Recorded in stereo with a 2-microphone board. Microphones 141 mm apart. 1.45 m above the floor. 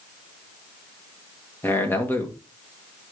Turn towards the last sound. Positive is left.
turn(degrees=15)  # may be behind; listen again after turning